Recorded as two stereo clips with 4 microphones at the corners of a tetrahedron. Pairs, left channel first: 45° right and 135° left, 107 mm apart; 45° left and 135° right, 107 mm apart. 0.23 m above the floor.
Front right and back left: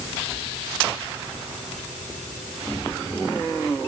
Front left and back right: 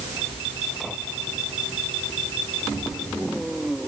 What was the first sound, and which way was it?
Only background noise.